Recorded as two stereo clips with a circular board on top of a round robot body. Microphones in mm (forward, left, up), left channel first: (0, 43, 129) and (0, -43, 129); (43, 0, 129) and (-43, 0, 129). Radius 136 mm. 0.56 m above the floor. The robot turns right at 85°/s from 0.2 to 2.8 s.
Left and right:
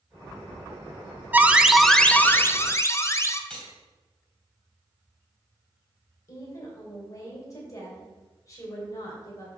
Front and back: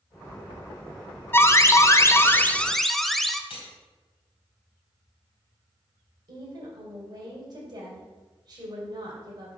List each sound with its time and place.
1.3 s an alarm: 40° right, 0.8 m; by 3.4 s 85° left, 0.8 m
3.5 s cutlery clinking: 10° left, 2 m
6.3 s a woman speaking: 145° left, 3 m